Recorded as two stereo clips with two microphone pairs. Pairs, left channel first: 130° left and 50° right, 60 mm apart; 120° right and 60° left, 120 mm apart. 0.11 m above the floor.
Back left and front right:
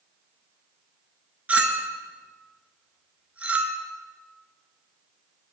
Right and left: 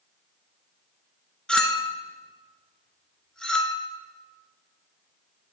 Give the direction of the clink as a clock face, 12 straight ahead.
2 o'clock.